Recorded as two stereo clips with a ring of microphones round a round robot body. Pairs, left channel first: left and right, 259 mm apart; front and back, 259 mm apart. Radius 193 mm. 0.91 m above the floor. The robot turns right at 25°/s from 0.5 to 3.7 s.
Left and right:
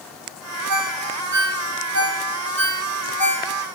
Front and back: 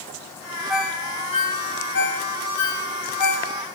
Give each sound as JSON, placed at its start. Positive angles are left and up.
{"t": 0.7, "sound": "a ringtone", "azimuth_deg": -90, "distance_m": 3.5}